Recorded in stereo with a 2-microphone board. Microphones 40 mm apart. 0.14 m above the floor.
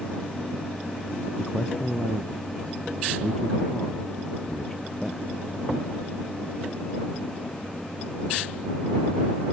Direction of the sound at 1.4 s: 5° left (ahead or behind).